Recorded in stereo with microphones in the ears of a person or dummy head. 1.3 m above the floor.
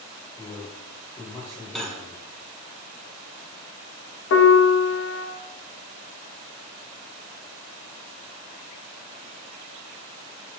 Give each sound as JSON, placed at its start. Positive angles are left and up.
{"t": 0.4, "sound": "a man speaking", "side_deg": 10, "distance_m": 1.6}
{"t": 1.8, "sound": "cutlery clinking", "side_deg": 5, "distance_m": 0.7}
{"t": 4.3, "sound": "a piano", "side_deg": 65, "distance_m": 0.8}